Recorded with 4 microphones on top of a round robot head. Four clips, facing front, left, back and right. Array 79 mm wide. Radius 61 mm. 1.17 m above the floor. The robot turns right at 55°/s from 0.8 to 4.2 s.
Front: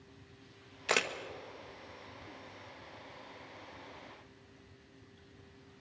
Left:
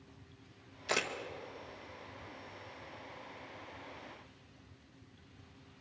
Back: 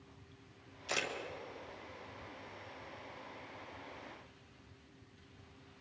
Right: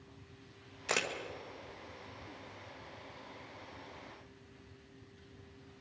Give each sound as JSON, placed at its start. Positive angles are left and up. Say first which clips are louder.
{"t": 0.9, "sound": "a camera shutter", "louder": "even, front 6 dB", "azimuth_deg": -15, "distance_m": 1.9}